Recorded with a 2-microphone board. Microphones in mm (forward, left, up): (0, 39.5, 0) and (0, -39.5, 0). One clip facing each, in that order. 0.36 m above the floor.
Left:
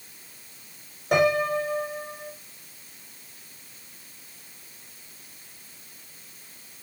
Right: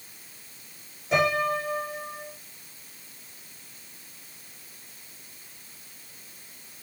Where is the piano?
65° left (ahead or behind), 7 m.